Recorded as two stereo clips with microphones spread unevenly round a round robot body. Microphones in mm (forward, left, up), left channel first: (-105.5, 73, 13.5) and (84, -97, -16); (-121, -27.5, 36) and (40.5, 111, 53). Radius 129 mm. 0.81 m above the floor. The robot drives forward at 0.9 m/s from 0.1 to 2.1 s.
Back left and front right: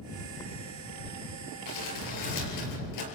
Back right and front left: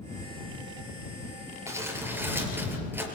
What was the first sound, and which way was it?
Crumpling, 115° left.